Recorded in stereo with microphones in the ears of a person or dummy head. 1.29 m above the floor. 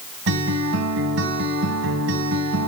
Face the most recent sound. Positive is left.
turn(degrees=-65)  # may be behind; listen again after turning